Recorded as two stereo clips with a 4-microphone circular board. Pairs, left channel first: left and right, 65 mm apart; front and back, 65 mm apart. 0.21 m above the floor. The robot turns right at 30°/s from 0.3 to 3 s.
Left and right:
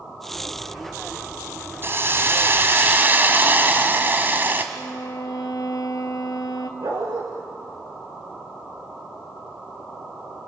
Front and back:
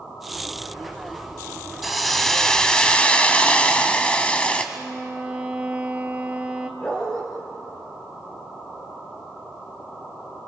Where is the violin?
110° left, 1.5 m.